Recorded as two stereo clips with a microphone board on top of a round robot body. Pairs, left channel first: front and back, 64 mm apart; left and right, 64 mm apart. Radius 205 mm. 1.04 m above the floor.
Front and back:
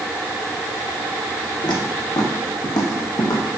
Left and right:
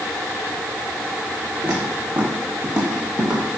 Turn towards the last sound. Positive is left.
turn(degrees=-5)